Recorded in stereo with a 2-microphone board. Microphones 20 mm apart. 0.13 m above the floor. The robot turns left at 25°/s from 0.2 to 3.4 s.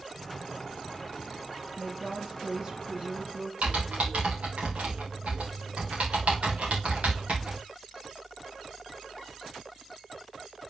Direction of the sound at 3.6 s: 80° right.